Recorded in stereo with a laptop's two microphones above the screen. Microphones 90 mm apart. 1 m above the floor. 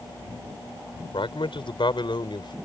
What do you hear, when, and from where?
1.1 s a man speaking: 70° left (ahead or behind); by 2.6 s 60° left (ahead or behind)